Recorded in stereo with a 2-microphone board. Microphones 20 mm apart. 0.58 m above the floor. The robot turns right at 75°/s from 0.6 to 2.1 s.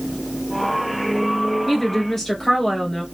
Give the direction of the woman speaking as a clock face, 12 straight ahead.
1 o'clock.